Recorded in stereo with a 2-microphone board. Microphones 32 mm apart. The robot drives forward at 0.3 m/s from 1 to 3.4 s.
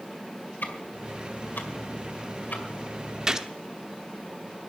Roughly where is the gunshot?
Right.